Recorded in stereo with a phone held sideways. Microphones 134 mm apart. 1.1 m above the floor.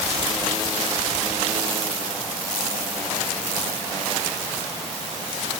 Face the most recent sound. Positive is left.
No sound to turn to.